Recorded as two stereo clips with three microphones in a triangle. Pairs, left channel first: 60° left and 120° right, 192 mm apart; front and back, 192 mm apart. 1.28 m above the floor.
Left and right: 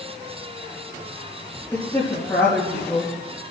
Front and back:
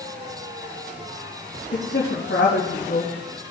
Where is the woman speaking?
15° right, 2.5 m.